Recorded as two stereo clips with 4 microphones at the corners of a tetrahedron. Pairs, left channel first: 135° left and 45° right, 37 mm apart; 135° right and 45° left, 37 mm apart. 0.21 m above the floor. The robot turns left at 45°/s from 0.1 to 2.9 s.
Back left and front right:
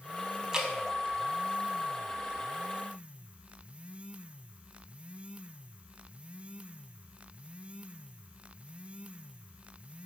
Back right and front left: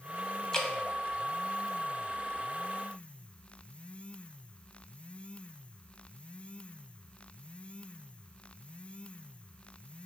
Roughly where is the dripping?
Right.